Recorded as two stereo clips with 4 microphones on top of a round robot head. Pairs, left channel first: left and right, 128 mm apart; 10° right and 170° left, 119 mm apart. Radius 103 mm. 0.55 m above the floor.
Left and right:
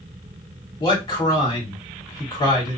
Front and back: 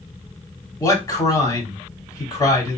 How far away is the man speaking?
About 1.9 m.